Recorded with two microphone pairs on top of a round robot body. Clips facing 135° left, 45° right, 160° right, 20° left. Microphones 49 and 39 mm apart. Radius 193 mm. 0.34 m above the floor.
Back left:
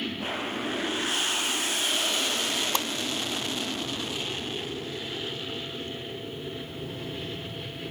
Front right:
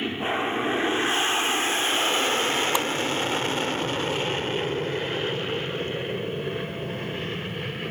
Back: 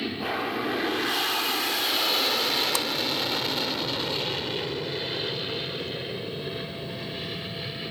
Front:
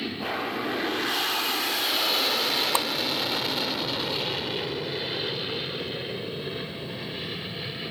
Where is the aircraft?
80° right; by 7.9 s 65° right.